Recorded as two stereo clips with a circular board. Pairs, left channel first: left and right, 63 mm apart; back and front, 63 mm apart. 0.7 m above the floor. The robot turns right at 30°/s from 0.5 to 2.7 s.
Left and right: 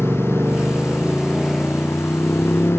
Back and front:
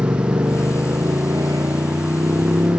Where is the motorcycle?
35° right; by 2.8 s 35° left.